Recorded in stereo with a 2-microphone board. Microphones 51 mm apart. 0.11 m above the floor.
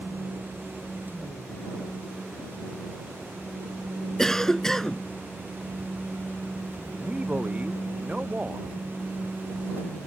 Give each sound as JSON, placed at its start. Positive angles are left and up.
{"t": 4.2, "sound": "a cough", "side_deg": 10}
{"t": 6.9, "sound": "a man speaking", "side_deg": -25}